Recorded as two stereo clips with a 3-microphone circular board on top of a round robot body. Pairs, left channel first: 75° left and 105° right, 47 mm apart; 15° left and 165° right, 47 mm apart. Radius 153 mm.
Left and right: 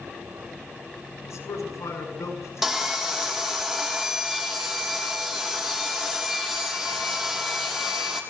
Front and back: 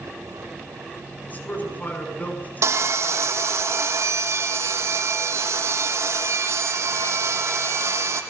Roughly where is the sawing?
Behind.